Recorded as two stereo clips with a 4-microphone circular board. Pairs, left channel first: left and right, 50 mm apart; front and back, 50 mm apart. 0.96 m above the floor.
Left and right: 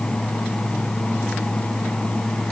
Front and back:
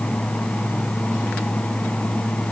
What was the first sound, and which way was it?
Only background noise.